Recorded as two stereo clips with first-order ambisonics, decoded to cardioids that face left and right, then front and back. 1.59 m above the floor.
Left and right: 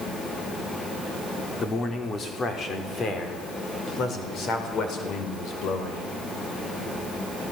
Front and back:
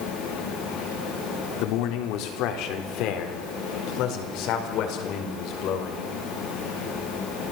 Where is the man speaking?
25° left, 3.5 m; by 6.1 s 40° left, 5.5 m.